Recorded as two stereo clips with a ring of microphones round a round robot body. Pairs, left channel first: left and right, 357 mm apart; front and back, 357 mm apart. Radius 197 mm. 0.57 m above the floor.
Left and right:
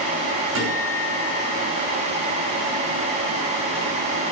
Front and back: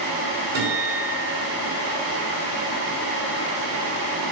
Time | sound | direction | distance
0.6 | a guitar | 145° right | 5.5 m